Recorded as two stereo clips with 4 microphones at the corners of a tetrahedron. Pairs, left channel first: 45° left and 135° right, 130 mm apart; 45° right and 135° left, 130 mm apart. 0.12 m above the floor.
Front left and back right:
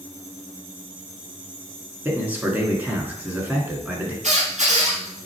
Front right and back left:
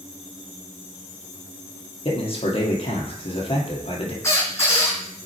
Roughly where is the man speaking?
Ahead right.